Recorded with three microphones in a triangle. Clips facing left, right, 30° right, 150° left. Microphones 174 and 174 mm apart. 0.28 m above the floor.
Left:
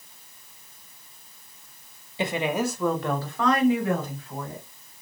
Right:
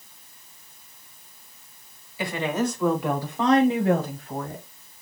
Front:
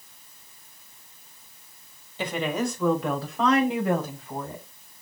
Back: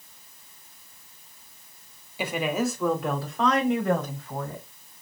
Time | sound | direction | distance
2.2 | a woman speaking | 80° left | 1.1 m